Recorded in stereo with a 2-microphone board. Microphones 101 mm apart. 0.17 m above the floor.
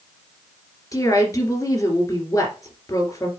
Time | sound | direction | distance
0.9 | a woman speaking | 30° left (ahead or behind) | 2.5 m